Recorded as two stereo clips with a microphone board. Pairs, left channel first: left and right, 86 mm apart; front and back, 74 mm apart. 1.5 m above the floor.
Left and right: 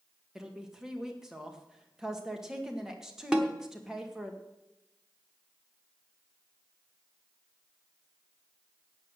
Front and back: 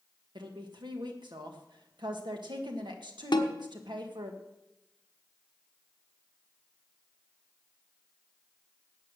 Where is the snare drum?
10° right, 1.1 m.